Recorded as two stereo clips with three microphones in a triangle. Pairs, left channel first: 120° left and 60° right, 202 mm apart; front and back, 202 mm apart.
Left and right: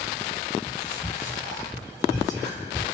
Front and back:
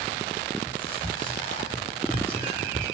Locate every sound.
0.7 s whispering: 15° left, 6 m